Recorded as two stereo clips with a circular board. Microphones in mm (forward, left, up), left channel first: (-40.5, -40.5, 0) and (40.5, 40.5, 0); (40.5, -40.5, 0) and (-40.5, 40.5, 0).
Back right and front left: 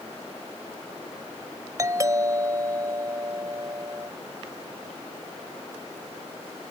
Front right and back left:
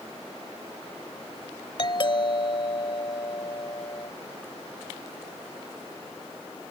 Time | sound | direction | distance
1.8 | a doorbell | 10° right | ?